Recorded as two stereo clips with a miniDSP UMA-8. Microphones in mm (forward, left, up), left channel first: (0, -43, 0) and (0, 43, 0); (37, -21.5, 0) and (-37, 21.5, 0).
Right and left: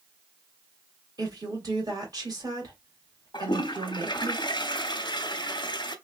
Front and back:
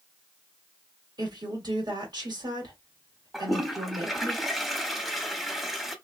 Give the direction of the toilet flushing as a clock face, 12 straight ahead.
4 o'clock.